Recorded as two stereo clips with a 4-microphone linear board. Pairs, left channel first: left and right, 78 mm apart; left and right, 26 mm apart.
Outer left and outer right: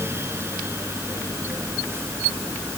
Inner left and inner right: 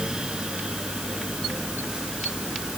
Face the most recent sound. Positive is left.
No sound to turn to.